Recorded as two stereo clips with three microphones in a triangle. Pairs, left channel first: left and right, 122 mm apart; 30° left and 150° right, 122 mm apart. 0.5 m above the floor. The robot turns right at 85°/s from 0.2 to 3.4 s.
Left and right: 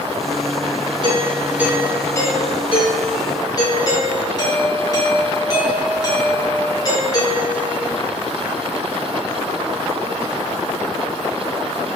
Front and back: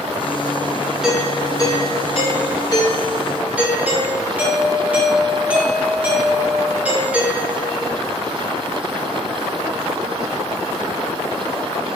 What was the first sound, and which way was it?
A doorbell, 65° right.